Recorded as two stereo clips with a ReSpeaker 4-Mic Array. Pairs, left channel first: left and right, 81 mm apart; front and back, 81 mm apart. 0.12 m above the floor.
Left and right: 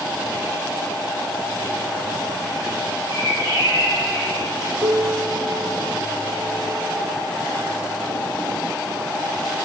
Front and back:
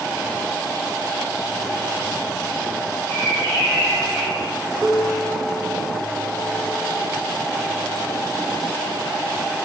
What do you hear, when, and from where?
3.1 s a bird: 50° left, 4 m
4.8 s a piano: 110° right, 2 m